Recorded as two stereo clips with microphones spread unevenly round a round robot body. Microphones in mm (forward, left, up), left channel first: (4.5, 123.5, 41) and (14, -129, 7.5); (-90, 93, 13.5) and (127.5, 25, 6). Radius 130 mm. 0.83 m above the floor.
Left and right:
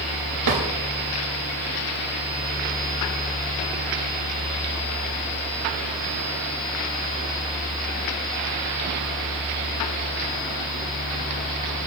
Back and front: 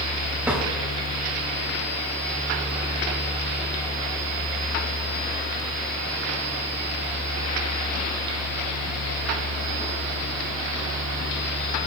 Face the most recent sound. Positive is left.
turn(degrees=-100)